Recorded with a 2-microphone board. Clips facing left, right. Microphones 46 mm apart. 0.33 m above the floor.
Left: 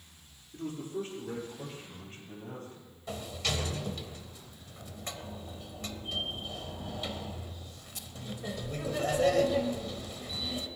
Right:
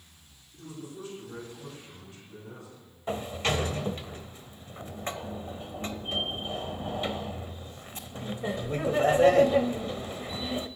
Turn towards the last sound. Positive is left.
turn(degrees=-35)  # may be behind; listen again after turning